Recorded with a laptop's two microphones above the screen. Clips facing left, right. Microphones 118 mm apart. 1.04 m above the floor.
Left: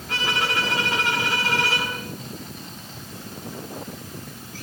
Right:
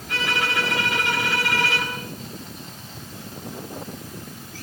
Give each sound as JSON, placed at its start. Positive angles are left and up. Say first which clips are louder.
{"t": 0.1, "sound": "a violin", "louder": "even", "side_deg": 35, "distance_m": 6.5}